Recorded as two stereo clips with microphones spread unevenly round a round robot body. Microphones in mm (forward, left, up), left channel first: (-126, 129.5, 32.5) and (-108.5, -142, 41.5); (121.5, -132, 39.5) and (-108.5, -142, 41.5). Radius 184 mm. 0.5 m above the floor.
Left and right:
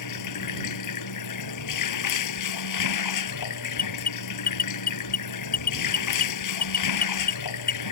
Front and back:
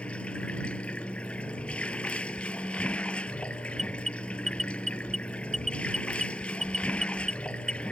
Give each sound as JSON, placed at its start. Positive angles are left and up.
{"t": 0.0, "sound": "running water", "azimuth_deg": 90}
{"t": 3.8, "sound": "an alarm", "azimuth_deg": 110}